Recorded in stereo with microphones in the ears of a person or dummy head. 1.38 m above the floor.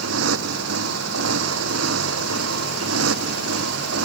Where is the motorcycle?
85° right.